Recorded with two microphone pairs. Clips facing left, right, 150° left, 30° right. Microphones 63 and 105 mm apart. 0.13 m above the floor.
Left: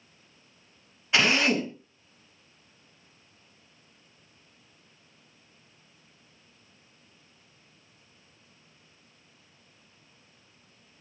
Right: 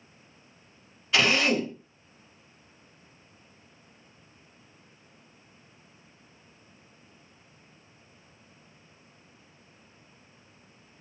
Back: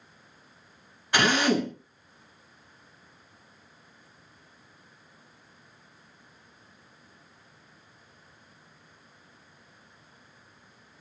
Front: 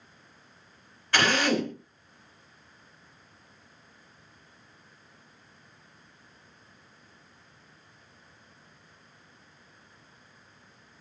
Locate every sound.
1.1 s a drill: 115° left, 1.5 m